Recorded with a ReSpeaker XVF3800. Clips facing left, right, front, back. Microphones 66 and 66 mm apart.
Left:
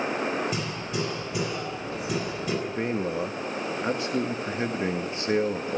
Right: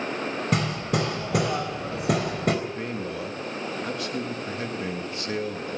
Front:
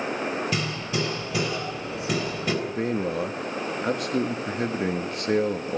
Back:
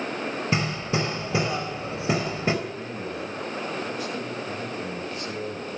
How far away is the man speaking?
About 1.5 m.